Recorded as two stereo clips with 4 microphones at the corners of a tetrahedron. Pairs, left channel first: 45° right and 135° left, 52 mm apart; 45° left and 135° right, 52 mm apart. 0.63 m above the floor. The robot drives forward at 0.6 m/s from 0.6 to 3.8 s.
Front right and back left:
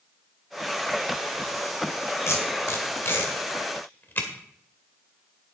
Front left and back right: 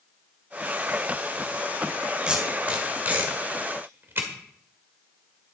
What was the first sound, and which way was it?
Tape being pulled, 65° right.